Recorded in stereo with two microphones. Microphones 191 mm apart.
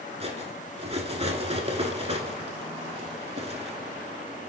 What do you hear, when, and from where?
0.2 s cutlery clinking: 35° right (ahead or behind), 1.0 m